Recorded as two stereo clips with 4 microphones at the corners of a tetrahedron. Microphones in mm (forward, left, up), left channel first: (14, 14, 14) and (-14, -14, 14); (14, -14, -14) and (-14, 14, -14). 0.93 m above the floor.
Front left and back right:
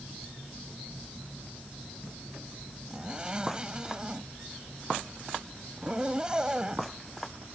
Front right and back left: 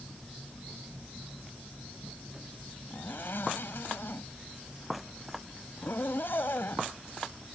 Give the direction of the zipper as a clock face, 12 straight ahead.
2 o'clock.